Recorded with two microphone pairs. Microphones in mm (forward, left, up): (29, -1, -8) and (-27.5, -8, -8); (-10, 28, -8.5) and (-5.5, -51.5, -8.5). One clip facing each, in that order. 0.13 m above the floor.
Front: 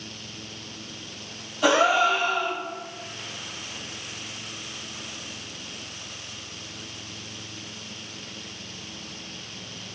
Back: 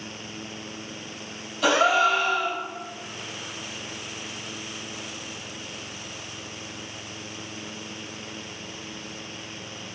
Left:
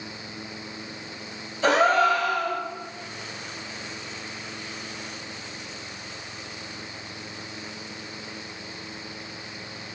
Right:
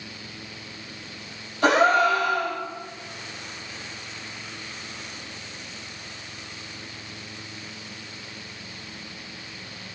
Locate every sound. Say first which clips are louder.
1.6 s a gasp: even, right 1 dB; 65° right, 1.8 m